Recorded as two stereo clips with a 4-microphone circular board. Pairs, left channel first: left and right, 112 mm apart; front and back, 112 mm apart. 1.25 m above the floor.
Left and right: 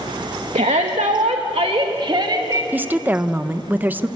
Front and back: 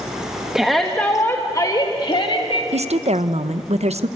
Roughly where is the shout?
Right.